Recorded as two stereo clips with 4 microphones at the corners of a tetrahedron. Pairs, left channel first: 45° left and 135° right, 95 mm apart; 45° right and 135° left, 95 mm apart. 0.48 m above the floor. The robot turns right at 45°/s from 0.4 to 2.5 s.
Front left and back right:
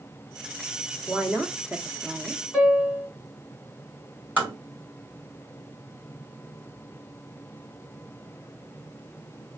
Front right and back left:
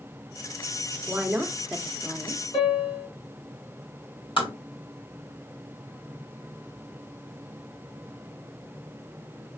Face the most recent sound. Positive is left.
turn(degrees=-65)